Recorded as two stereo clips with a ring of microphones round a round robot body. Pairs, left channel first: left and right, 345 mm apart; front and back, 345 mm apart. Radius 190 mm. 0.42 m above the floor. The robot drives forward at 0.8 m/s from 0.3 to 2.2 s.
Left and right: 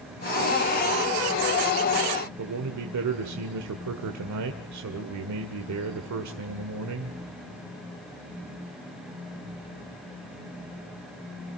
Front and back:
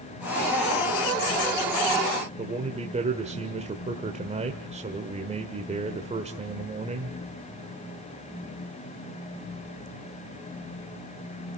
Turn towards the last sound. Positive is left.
turn(degrees=-115)